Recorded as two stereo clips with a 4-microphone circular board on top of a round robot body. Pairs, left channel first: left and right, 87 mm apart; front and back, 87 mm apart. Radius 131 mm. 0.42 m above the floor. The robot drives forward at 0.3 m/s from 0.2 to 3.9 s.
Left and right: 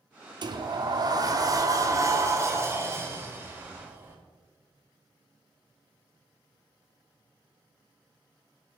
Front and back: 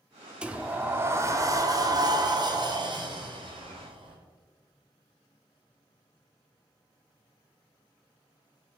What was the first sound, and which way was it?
A sliding door, 105° right.